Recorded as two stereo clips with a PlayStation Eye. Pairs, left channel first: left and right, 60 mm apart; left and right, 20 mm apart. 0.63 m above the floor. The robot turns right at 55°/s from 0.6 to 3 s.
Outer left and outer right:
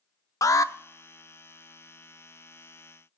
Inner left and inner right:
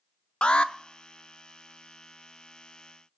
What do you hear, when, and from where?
0.4 s an alarm: 65° left (ahead or behind), 0.5 m; by 0.7 s 60° left (ahead or behind), 0.5 m